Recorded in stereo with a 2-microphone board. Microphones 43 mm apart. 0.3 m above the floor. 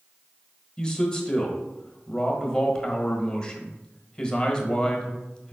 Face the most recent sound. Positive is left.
turn(degrees=15)  # may be behind; listen again after turning